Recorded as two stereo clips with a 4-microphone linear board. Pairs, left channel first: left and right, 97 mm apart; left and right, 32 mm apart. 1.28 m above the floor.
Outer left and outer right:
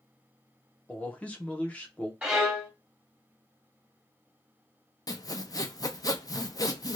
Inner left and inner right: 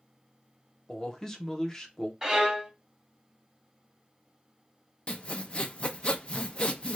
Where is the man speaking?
15° left (ahead or behind), 0.9 m.